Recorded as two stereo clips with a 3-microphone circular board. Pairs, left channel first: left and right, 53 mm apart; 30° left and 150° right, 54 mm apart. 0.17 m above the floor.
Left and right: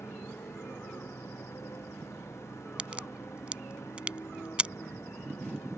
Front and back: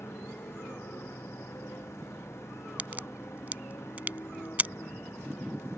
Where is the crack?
140° right.